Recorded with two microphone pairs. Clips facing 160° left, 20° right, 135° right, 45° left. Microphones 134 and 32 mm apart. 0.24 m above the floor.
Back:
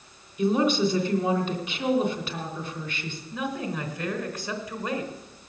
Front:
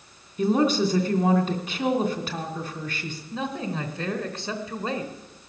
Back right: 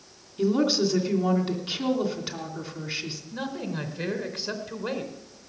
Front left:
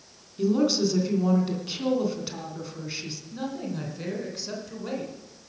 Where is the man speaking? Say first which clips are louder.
Front 1 dB, even; 80° right, 2.5 m.